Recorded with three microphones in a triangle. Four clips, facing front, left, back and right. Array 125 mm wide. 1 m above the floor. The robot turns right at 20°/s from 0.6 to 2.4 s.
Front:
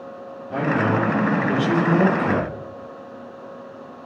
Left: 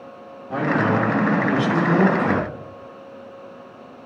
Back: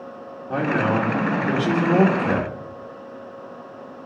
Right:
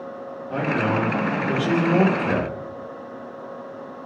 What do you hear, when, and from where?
0.5 s a man speaking: 175° left, 2.5 m; by 2.6 s 150° right, 2.5 m